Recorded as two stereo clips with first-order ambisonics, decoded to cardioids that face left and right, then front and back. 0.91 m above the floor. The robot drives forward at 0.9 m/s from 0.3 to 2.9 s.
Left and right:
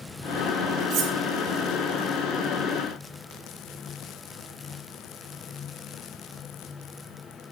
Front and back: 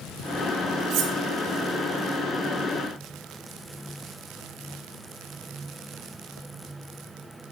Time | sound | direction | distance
0.9 | cutlery clinking | 140° right | 2.5 m